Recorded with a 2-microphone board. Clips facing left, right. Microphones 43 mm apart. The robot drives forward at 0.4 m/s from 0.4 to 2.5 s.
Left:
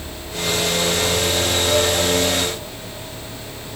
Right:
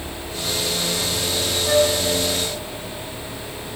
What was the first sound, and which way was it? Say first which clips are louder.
A flute: right 3 dB; 75° right (ahead or behind).